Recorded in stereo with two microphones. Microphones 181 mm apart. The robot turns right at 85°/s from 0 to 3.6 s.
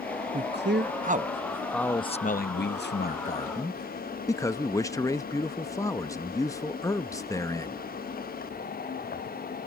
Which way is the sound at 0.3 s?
115° right.